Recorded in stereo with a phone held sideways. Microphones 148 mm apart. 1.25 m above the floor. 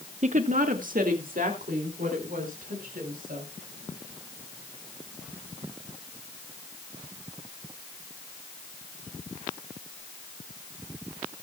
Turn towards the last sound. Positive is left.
turn(degrees=-75)  # may be behind; listen again after turning